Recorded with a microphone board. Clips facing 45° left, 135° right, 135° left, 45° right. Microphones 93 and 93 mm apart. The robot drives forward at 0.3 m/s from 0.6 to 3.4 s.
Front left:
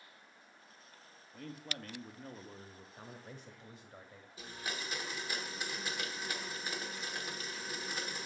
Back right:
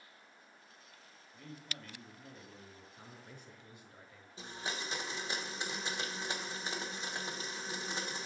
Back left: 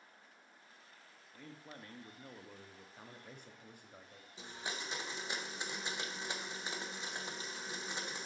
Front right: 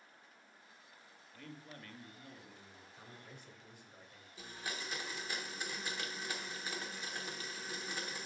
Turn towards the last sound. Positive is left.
turn(degrees=-175)